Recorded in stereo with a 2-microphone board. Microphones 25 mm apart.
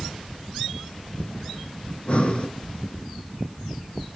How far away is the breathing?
About 0.7 m.